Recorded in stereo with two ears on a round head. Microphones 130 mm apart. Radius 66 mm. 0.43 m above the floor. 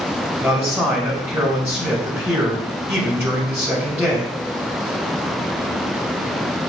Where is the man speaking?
20° right (ahead or behind), 2.5 m.